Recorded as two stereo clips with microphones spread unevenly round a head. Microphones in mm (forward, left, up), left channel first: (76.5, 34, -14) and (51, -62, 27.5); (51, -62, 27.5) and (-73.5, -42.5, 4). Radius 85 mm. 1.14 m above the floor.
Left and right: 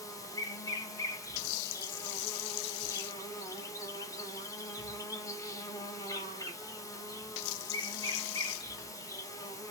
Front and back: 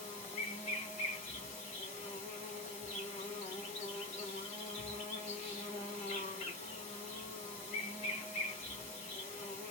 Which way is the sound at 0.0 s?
5° left.